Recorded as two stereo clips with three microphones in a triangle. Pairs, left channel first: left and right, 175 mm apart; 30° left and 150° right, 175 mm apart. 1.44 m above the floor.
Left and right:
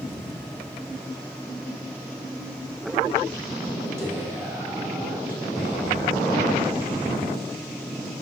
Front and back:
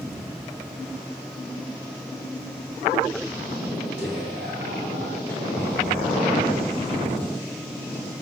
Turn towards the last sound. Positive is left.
turn(degrees=180)